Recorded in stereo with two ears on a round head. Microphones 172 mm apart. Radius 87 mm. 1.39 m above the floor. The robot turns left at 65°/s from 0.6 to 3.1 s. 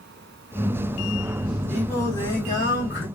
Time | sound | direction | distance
1.7 | singing | straight behind | 1.5 m